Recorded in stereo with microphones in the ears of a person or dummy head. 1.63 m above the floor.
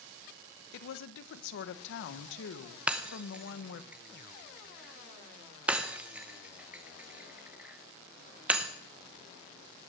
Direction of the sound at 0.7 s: 70° left (ahead or behind).